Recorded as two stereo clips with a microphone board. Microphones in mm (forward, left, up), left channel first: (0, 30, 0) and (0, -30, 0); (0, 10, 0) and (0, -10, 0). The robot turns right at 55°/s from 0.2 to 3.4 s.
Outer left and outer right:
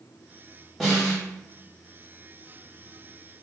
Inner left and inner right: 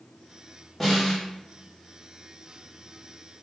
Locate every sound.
0.8 s a snare drum: centre (ahead or behind), 0.9 m; by 1.2 s 20° left (ahead or behind), 0.9 m